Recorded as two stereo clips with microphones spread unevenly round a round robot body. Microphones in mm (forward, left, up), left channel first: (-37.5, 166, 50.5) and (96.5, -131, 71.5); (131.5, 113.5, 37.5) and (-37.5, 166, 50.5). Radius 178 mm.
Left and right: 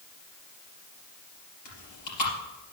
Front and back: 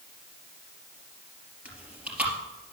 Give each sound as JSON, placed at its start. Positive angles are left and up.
{"t": 1.6, "sound": "chewing", "azimuth_deg": 80, "distance_m": 3.5}